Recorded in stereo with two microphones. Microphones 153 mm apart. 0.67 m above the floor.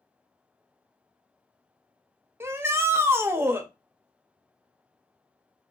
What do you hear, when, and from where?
2.4 s a shout: 15° right (ahead or behind), 0.8 m